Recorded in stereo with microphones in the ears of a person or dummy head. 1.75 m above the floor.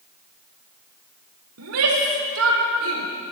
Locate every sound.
1.6 s a shout: 80° right, 4.5 m; by 3.1 s 75° right (ahead or behind), 4.5 m